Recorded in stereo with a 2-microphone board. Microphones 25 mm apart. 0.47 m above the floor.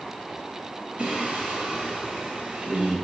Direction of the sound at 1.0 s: 45° right (ahead or behind).